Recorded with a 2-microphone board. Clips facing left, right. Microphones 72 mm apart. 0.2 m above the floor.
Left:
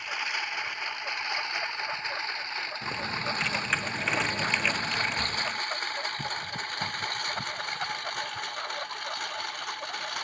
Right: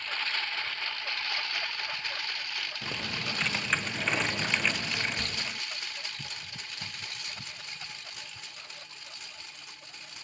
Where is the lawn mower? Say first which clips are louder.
Left 2 dB; 15° left (ahead or behind); by 10.2 s 70° left (ahead or behind).